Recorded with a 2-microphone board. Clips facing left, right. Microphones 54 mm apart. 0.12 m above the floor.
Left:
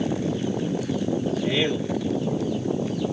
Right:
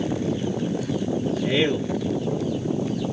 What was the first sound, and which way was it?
A man speaking, 15° right (ahead or behind).